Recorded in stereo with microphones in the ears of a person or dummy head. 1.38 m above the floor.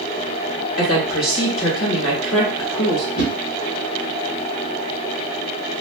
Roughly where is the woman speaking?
Left.